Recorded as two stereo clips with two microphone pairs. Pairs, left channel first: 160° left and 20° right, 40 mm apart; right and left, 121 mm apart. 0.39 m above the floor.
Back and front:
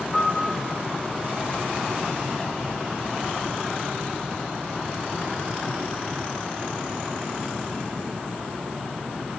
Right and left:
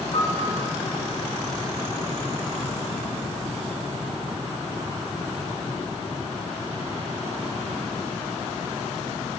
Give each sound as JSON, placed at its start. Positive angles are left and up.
{"t": 0.1, "sound": "a piano", "azimuth_deg": -115, "distance_m": 1.0}